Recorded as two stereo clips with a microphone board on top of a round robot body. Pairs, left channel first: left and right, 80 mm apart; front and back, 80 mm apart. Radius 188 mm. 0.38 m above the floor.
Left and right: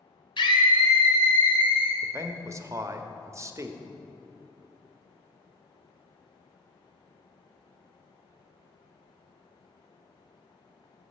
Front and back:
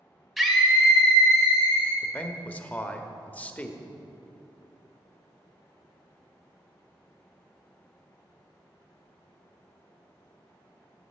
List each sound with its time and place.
0.4 s a scream: 90° left, 2 m; by 1.9 s 85° left, 3.5 m
2.0 s a man speaking: 65° right, 1.0 m